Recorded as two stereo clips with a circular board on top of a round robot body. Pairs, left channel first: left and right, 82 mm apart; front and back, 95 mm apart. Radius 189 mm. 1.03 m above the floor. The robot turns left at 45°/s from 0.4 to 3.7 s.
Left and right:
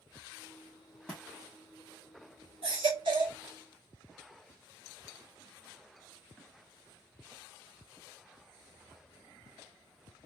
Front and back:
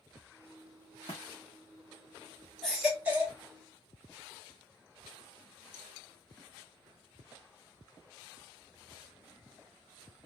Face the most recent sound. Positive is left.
turn(degrees=-135)